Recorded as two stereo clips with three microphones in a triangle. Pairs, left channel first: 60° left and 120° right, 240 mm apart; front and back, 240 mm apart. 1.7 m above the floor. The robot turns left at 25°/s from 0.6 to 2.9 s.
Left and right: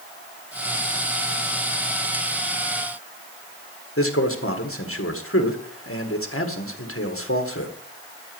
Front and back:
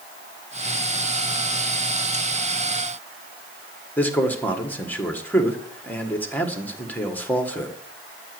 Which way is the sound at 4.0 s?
85° left.